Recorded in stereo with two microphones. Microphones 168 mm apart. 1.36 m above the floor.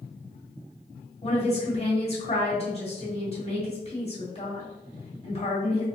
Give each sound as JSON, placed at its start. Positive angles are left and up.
{"t": 1.2, "sound": "a woman speaking", "side_deg": 35, "distance_m": 1.9}